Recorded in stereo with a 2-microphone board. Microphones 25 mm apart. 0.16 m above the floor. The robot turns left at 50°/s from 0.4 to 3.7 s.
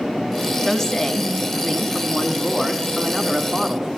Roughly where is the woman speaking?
Centre.